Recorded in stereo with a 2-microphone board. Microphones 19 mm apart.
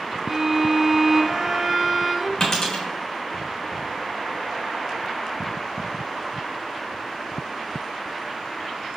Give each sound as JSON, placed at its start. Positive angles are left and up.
{"t": 0.3, "sound": "a violin", "side_deg": -30, "distance_m": 0.7}
{"t": 2.4, "sound": "a dropped coin", "side_deg": 20, "distance_m": 1.6}